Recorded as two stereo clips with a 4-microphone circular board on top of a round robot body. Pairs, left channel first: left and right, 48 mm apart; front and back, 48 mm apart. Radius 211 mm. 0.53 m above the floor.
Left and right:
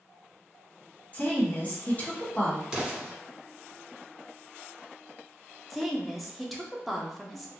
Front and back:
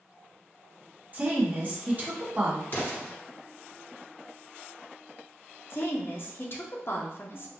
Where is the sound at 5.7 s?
Straight ahead, 1.0 m.